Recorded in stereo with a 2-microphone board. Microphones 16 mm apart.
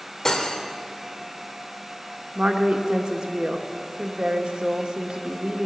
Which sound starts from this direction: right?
A woman speaking, at 2.4 s.